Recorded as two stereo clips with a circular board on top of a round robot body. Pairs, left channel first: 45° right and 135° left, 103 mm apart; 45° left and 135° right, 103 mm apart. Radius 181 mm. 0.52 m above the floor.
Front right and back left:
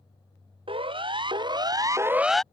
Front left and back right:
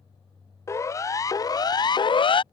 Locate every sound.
0.7 s a siren: 105° left; by 2.4 s 40° left